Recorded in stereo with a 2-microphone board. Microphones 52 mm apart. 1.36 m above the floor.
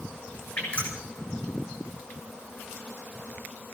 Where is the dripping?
30° left (ahead or behind), 7.5 m.